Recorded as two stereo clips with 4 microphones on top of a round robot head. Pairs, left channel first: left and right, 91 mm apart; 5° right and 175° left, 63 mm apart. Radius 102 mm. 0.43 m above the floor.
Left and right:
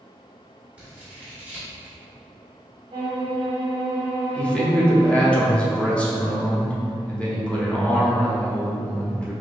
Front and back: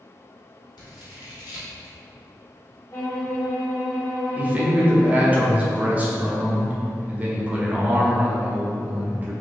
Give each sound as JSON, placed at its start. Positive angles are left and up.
{"t": 0.8, "sound": "scissors", "azimuth_deg": -10, "distance_m": 1.1}
{"t": 2.9, "sound": "a violin", "azimuth_deg": -55, "distance_m": 0.9}
{"t": 4.3, "sound": "a man speaking", "azimuth_deg": 150, "distance_m": 1.1}